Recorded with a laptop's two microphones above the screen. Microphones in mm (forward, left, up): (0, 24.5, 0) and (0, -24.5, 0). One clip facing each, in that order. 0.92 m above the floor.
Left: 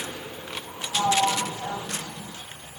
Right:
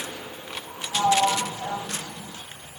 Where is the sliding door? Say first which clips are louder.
Right 2 dB; 15° right (ahead or behind), 3.5 m.